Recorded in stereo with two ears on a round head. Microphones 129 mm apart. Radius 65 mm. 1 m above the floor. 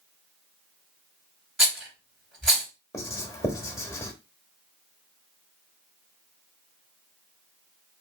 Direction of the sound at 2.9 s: 25° left (ahead or behind).